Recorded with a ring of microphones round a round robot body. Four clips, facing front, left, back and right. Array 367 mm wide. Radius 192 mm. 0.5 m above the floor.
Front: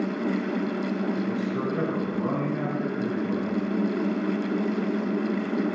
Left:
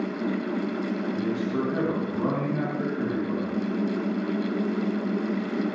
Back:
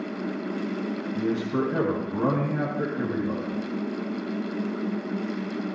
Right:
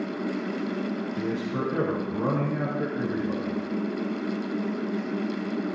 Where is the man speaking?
175° left, 4.5 m.